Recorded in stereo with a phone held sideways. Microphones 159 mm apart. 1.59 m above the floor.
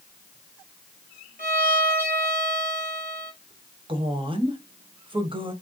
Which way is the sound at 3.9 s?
35° right (ahead or behind).